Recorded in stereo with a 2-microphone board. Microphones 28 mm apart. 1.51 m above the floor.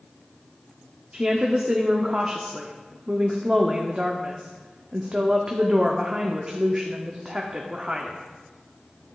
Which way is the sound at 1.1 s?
30° right (ahead or behind).